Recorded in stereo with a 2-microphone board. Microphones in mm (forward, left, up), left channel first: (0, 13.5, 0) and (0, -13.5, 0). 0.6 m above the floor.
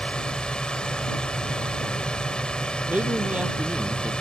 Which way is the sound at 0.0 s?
40° left (ahead or behind).